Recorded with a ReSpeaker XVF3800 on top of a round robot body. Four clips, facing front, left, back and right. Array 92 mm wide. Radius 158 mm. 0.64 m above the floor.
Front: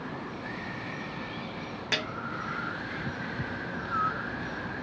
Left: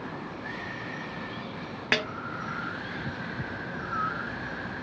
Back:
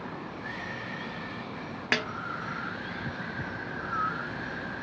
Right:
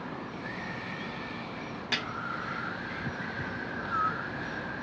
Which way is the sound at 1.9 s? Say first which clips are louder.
Left 7 dB, back 4 dB; 130° left.